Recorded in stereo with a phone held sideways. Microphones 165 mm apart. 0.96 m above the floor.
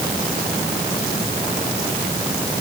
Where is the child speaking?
No child speaking in this recording.